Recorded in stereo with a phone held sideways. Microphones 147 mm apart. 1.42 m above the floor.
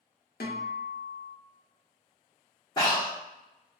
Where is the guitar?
75° left (ahead or behind), 0.7 m.